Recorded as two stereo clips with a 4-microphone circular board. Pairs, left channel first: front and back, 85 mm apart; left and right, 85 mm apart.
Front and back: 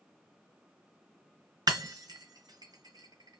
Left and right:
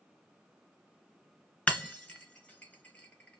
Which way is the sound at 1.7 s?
160° left.